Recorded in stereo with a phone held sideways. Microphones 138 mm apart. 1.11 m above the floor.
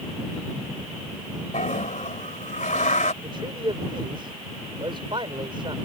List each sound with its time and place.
1.5 s a toilet flushing: 65° left (ahead or behind)
3.2 s a man speaking: 35° right (ahead or behind)